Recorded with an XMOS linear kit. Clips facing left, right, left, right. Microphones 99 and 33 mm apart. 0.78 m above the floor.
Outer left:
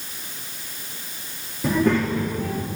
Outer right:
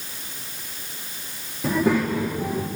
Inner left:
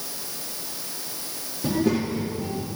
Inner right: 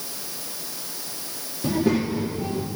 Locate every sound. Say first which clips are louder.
1.6 s a child speaking: outer left 1 dB, inner right 1 dB; centre (ahead or behind), 0.8 m; by 2.7 s 25° right (ahead or behind), 1.2 m